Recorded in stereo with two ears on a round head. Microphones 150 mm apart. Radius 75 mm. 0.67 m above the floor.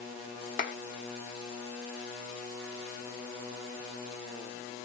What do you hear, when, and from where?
0.6 s a clap: 50° left (ahead or behind), 0.9 m